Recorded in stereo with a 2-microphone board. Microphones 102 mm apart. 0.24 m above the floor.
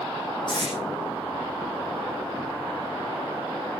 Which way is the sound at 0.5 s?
45° left (ahead or behind).